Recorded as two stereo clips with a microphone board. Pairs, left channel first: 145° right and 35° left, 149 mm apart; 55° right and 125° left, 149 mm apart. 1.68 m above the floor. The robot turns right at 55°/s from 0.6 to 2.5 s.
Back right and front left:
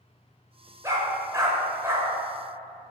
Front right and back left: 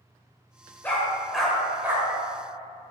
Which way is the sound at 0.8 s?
10° left.